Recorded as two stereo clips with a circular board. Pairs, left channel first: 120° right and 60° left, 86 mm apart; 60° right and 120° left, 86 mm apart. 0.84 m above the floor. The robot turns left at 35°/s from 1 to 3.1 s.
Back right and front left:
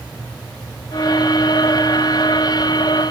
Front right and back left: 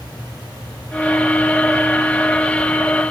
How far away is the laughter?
I don't hear laughter.